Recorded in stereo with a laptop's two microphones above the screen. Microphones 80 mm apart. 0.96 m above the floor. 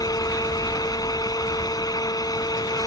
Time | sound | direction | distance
0.0 | a fan | 55° left (ahead or behind) | ?